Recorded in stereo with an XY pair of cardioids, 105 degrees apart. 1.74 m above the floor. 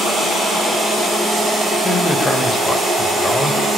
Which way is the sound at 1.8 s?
25° left.